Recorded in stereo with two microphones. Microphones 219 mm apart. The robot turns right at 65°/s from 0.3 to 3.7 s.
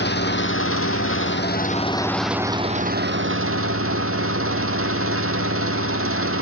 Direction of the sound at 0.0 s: 55° left.